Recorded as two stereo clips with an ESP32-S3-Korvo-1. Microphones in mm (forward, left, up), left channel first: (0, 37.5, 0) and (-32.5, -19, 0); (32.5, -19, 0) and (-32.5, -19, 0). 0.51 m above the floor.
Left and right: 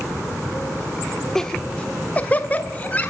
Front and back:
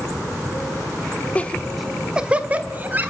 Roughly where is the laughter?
Ahead.